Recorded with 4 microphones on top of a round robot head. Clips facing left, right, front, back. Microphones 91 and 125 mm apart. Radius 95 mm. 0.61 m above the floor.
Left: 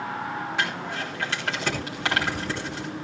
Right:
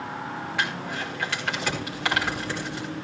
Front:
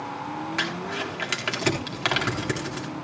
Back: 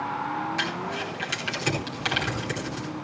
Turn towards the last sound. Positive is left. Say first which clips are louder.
# right 2 dB, even
turn(degrees=25)